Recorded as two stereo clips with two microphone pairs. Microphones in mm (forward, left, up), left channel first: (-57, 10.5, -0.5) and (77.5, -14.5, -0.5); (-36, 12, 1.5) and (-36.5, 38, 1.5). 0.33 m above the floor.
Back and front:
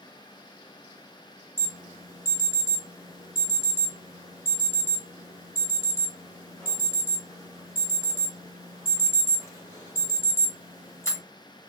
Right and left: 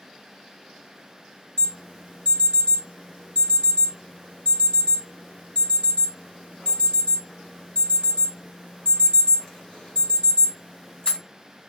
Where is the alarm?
130° right, 2.5 m.